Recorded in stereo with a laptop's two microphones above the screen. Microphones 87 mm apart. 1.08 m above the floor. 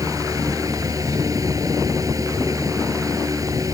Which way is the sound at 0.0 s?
40° right (ahead or behind).